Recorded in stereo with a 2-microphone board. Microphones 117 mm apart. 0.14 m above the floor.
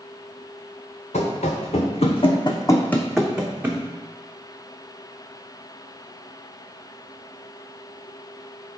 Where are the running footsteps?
85° left, 1.0 m; by 3.8 s 20° right (ahead or behind), 0.9 m.